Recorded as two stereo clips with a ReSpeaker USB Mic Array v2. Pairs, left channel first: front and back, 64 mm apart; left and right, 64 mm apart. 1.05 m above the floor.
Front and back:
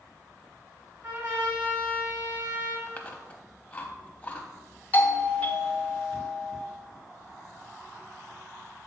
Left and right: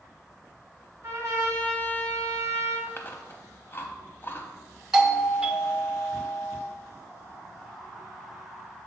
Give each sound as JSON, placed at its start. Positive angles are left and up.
{"t": 1.0, "sound": "a trumpet", "azimuth_deg": -130, "distance_m": 1.9}
{"t": 2.9, "sound": "chewing", "azimuth_deg": 60, "distance_m": 0.7}
{"t": 4.9, "sound": "a doorbell", "azimuth_deg": -30, "distance_m": 0.6}